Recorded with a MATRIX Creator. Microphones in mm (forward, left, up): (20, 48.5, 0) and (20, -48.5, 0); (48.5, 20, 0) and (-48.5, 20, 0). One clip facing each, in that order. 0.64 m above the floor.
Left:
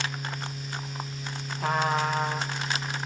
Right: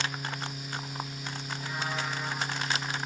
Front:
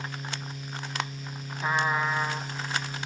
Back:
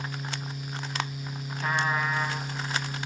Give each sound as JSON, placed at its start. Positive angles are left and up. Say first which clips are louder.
{"t": 1.6, "sound": "a trumpet", "louder": "left 10 dB, front 1 dB", "azimuth_deg": 80, "distance_m": 1.8}